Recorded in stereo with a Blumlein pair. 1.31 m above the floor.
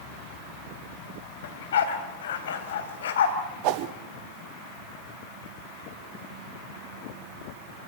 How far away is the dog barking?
About 3.5 m.